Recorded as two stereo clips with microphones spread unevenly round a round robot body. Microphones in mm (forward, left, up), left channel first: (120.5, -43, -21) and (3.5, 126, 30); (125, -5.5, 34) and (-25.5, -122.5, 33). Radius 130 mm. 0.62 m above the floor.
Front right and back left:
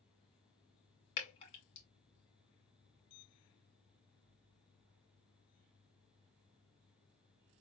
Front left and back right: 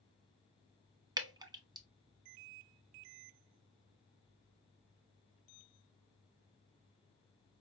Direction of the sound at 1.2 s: 85° right.